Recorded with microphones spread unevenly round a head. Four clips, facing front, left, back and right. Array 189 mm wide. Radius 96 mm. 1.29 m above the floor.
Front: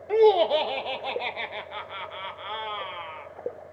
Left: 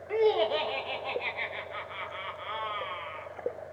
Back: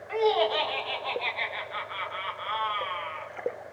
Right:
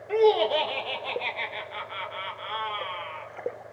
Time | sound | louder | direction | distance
0.1 | laughter | right 4 dB, front 6 dB | 5° right | 1.2 m